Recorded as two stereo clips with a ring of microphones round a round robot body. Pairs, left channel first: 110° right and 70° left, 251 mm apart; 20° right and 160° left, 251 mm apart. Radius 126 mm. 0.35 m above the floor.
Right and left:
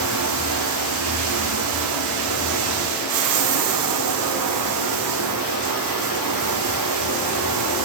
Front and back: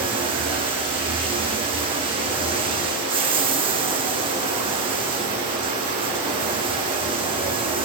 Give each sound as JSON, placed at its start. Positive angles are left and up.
{"t": 0.0, "sound": "running water", "azimuth_deg": 85, "distance_m": 1.9}